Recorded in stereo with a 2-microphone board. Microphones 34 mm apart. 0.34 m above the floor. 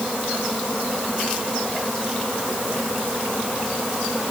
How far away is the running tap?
No running tap in this recording.